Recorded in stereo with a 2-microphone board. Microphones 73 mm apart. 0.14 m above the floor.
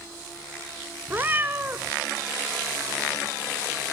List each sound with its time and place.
1.1 s a cat meowing: 25° right (ahead or behind), 0.9 m